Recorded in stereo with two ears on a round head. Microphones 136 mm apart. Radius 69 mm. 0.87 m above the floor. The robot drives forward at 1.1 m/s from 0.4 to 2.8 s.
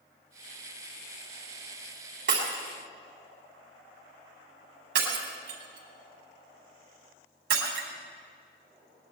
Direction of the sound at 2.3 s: 75° right (ahead or behind).